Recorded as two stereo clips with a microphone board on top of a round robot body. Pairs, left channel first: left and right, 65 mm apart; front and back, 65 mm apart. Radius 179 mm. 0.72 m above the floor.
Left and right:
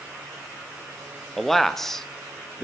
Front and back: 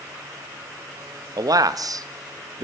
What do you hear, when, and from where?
1.4 s a man speaking: 175° left, 1.3 m